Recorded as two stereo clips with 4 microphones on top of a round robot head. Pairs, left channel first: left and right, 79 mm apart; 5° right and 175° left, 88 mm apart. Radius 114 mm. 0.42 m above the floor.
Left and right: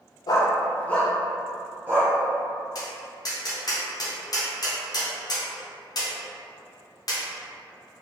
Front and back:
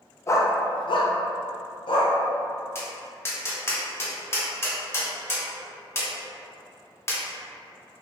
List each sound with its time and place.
0.3 s a dog barking: 55° left, 0.6 m; by 2.1 s 25° right, 0.9 m
2.8 s tapping: 55° left, 1.1 m